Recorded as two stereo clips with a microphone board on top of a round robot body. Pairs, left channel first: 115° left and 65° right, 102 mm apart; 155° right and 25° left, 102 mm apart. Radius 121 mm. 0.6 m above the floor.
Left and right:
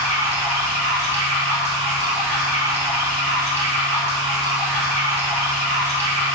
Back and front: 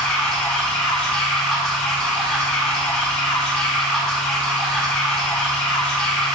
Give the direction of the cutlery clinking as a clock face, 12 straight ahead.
No cutlery clinking in this recording.